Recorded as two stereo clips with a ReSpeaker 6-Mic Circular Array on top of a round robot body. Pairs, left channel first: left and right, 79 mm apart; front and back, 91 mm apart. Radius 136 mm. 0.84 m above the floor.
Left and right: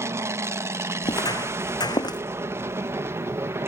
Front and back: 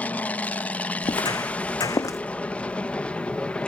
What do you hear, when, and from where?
0.0 s an aircraft: 65° right; by 3.7 s 70° right
1.0 s footsteps: 50° left; by 2.2 s 55° left